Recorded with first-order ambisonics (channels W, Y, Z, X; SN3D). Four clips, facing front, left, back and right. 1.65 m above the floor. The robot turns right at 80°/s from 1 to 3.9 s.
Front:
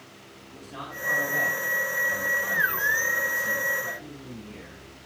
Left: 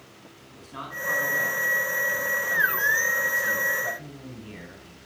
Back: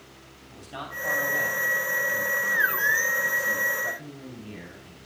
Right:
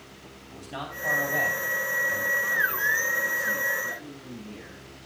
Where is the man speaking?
105° right, 3.5 m; by 5.0 s 130° left, 3.5 m.